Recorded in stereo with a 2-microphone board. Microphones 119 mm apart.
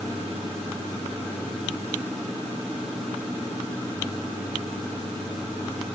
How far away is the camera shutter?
No camera shutter in this recording.